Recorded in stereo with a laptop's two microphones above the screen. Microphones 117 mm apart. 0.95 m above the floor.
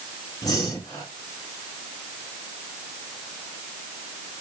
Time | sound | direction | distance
0.4 | breathing | 30° left (ahead or behind) | 3 m